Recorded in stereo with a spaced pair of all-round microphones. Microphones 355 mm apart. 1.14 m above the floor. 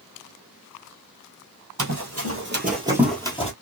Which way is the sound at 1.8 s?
55° right (ahead or behind).